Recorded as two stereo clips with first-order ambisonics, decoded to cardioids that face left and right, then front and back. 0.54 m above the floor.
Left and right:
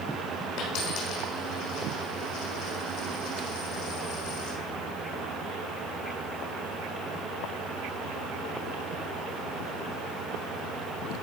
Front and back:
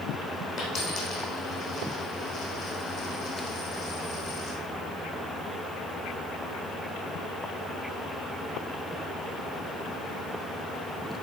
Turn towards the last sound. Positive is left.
turn(degrees=50)